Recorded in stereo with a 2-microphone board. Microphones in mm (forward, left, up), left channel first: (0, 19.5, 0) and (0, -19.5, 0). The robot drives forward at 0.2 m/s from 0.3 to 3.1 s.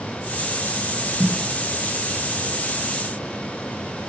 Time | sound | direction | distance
1.2 | a snare drum | 35° right (ahead or behind) | 1.6 m